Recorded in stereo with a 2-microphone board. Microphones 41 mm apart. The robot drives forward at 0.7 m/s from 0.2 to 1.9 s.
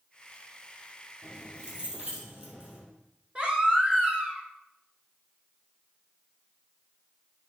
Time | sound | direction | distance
1.2 | keys jangling | 30° right (ahead or behind) | 1.8 m
3.4 | a baby crying | 20° right (ahead or behind) | 1.3 m